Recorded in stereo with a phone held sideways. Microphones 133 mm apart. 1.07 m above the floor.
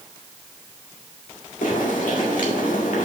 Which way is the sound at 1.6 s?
85° left.